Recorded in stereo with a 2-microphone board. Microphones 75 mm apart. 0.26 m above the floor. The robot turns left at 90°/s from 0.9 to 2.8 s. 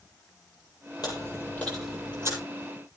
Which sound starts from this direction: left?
Chewing, at 1.0 s.